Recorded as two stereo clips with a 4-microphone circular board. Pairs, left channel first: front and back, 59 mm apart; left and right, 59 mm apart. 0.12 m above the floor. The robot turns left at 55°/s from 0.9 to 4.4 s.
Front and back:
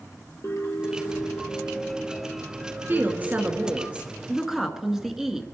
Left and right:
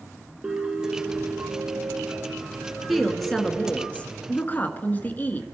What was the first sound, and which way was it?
A piano, 15° right.